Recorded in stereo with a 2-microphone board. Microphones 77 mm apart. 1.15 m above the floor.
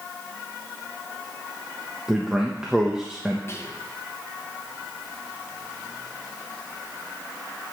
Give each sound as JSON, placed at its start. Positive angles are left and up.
{"t": 2.1, "sound": "a man speaking", "side_deg": -10, "distance_m": 1.1}
{"t": 3.5, "sound": "whispering", "side_deg": 35, "distance_m": 1.3}